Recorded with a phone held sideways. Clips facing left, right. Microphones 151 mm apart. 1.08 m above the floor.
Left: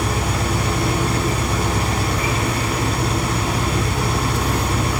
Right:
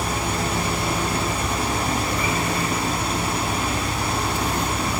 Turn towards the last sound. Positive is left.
turn(degrees=85)